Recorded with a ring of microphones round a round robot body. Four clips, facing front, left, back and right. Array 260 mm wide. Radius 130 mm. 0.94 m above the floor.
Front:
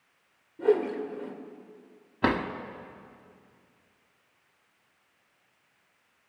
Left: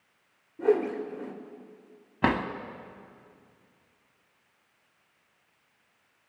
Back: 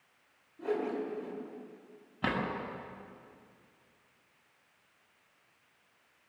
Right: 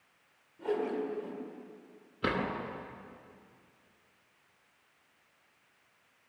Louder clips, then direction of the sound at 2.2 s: Left 6 dB, front 7 dB; 60° left.